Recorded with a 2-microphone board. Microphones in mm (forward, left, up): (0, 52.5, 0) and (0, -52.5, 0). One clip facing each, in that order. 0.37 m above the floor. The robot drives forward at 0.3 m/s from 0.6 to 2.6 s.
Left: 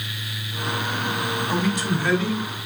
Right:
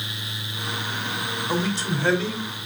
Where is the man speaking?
30° right (ahead or behind), 1.4 m; by 2.5 s 25° right (ahead or behind), 1.5 m.